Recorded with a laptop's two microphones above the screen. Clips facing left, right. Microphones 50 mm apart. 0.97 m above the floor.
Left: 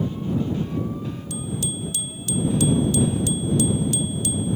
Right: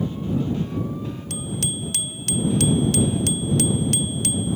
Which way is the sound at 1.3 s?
65° right (ahead or behind).